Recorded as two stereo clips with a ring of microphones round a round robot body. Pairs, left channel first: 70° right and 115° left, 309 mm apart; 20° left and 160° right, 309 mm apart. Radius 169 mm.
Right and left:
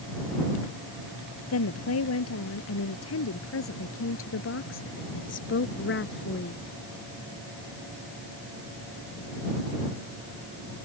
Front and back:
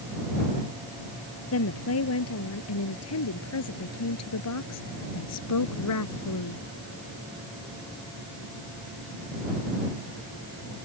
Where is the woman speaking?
25° right; by 6.6 s 10° right.